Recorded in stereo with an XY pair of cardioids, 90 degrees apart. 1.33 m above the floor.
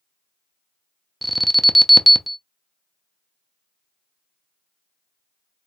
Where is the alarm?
Straight ahead, 0.5 m.